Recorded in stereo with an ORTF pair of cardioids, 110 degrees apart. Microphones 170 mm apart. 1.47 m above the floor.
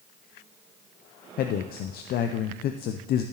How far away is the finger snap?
No finger snap in this recording.